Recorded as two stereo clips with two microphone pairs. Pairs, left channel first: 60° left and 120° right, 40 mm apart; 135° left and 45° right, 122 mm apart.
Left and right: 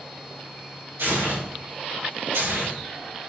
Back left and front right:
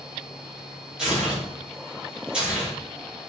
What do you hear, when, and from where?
1.0 s tearing paper: 130° right, 3.5 m